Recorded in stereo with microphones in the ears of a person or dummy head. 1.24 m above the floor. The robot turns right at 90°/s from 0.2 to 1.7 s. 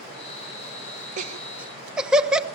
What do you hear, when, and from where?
1.2 s laughter: 45° right (ahead or behind), 1.1 m; by 2.5 s centre (ahead or behind), 1.1 m